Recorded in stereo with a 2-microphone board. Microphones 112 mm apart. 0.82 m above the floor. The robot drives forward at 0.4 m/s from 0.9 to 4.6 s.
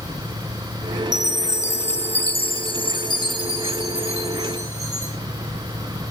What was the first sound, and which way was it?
A chime, 80° left.